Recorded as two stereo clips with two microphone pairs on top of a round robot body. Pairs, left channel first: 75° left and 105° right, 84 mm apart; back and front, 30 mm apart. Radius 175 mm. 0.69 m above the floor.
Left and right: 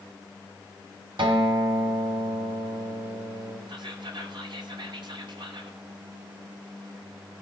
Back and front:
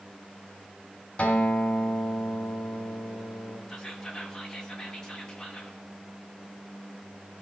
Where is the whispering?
110° right, 2.5 m.